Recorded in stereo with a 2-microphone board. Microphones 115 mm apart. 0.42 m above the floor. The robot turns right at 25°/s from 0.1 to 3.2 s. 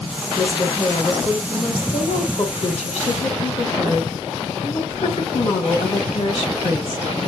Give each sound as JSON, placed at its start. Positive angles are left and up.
{"t": 0.4, "sound": "a woman speaking", "azimuth_deg": 30, "distance_m": 3.0}